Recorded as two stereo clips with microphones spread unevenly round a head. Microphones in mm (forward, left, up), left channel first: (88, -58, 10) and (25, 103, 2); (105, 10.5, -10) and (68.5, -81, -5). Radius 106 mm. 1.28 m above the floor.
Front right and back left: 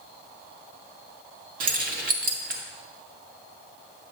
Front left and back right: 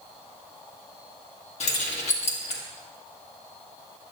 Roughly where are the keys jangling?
Left.